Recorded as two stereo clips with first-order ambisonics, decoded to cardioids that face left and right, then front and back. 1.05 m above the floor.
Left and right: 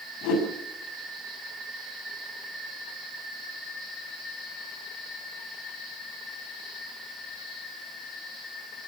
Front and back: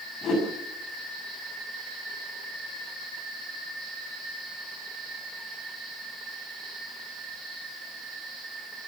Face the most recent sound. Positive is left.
turn(degrees=60)